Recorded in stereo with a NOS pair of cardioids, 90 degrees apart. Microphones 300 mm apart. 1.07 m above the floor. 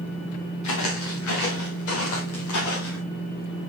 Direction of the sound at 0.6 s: 65° left.